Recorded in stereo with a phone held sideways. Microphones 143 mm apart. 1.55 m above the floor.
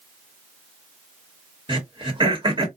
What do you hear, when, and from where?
1.7 s throat clearing: 35° right (ahead or behind), 1.2 m